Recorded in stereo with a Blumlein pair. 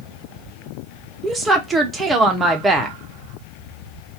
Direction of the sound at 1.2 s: 10° right.